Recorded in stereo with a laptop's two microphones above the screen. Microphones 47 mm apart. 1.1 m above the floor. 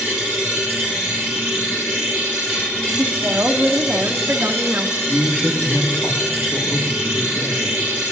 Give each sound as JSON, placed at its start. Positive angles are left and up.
{"t": 0.0, "sound": "a machine running", "side_deg": 35, "distance_m": 5.0}
{"t": 3.0, "sound": "a woman speaking", "side_deg": -40, "distance_m": 0.8}
{"t": 5.0, "sound": "a man speaking", "side_deg": 25, "distance_m": 1.7}